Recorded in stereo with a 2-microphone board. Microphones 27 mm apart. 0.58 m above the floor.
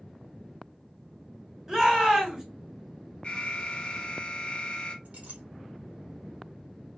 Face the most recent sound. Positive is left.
turn(degrees=-60)  # may be behind; listen again after turning